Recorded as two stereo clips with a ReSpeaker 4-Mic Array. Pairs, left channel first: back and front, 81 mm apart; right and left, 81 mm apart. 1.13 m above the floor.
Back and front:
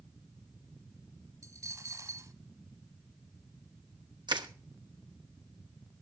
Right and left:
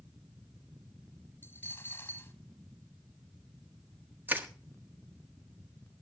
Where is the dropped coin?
25° right, 1.6 m.